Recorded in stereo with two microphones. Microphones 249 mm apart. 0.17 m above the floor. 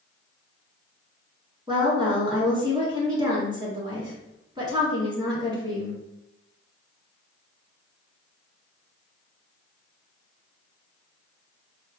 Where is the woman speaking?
20° right (ahead or behind), 1.9 m.